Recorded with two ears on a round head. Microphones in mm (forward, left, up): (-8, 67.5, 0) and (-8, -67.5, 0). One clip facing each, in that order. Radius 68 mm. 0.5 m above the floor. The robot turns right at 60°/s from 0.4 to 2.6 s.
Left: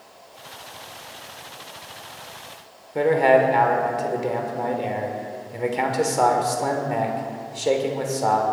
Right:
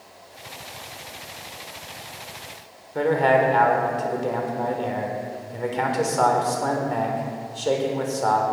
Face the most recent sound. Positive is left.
turn(degrees=15)  # may be behind; listen again after turning